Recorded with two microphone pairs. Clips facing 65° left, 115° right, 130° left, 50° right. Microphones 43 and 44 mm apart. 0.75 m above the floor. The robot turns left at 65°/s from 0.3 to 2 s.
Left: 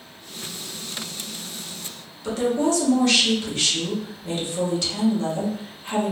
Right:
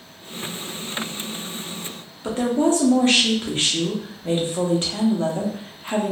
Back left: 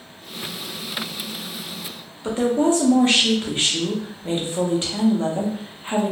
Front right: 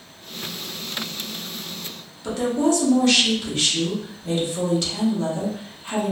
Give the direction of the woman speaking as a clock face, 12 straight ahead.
6 o'clock.